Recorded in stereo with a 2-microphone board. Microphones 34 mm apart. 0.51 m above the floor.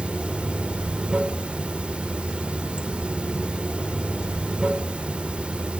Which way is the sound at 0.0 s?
30° right (ahead or behind).